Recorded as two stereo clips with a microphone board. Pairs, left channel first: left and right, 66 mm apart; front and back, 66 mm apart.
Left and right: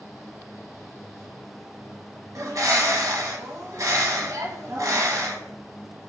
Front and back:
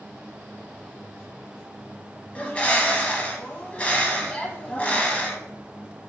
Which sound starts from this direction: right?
A bird, at 2.4 s.